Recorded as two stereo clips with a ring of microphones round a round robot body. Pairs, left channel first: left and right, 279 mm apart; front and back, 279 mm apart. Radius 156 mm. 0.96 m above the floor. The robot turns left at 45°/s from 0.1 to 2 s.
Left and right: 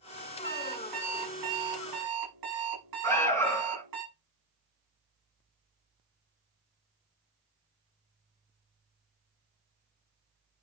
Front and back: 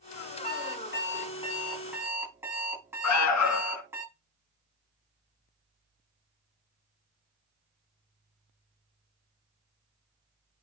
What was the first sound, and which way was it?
An alarm clock, 30° right.